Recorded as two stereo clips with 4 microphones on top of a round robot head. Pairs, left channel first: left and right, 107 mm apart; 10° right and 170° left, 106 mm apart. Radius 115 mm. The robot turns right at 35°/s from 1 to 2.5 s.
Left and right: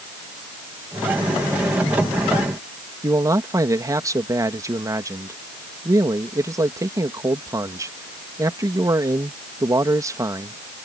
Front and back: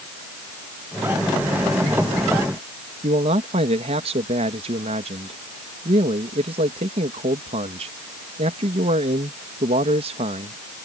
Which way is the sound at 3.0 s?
150° right.